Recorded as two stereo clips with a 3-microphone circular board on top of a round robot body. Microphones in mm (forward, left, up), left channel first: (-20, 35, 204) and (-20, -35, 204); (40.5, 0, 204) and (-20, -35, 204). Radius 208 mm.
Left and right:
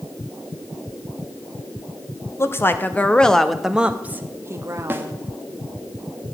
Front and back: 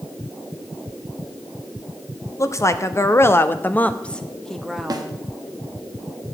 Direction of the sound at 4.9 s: 145° right.